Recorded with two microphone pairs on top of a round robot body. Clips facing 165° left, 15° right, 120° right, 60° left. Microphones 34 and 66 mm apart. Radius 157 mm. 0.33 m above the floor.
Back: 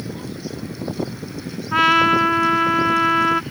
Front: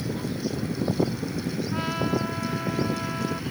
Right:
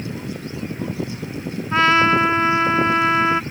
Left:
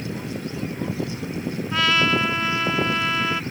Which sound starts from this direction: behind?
A trumpet, at 1.7 s.